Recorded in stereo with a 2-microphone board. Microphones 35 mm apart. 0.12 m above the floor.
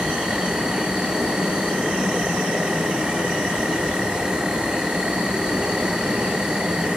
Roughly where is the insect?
Right.